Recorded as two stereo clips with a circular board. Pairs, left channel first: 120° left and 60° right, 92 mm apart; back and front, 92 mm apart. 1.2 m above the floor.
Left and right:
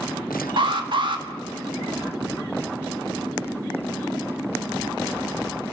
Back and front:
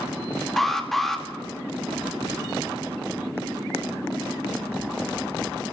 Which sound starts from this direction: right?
An alarm, at 0.6 s.